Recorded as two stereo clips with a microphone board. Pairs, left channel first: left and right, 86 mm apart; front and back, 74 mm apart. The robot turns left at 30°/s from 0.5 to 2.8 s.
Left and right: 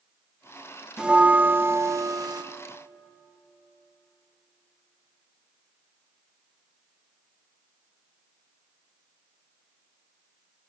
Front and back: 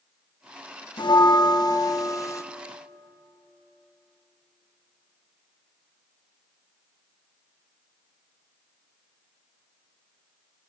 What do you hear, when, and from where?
1.0 s a bell: 10° right, 0.8 m; by 2.4 s 55° right, 0.8 m